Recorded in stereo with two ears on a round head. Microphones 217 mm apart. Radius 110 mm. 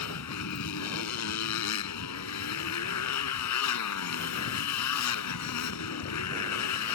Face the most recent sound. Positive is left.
turn(degrees=85)